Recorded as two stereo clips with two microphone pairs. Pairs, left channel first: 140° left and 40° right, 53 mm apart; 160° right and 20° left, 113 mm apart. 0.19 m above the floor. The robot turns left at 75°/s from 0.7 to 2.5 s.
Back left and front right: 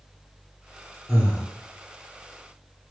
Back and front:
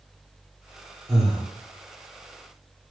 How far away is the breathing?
About 1.6 m.